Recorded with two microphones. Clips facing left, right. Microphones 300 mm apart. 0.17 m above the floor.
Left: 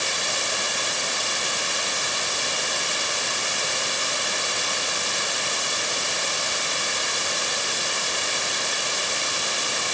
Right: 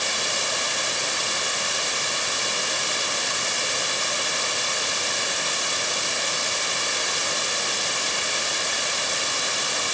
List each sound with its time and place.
Only background noise.